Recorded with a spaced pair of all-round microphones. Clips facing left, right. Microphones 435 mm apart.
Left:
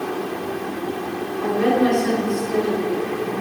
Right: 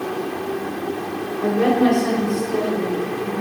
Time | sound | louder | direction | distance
1.4 | a woman speaking | right 1 dB | 70° right (ahead or behind) | 6 m